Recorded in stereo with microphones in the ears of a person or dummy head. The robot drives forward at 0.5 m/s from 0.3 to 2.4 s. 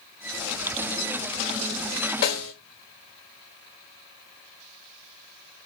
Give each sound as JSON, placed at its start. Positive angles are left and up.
{"t": 2.2, "sound": "a snare drum", "side_deg": 75, "distance_m": 3.5}